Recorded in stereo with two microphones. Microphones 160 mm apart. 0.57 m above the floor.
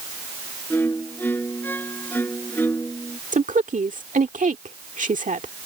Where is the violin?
10° left (ahead or behind).